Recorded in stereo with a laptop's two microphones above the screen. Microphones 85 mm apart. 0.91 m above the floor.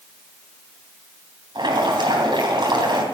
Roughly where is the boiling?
Right.